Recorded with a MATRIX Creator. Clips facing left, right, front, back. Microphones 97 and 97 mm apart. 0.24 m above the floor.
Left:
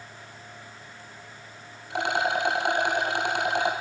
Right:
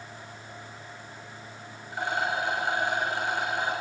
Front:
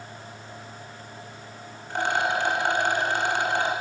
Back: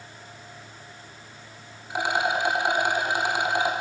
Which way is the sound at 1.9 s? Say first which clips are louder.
Left 3 dB, even; 100° left.